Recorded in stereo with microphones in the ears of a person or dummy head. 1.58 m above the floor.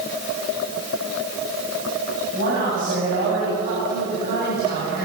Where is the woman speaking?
60° right (ahead or behind), 10 m; by 5.0 s 50° right (ahead or behind), 6.5 m.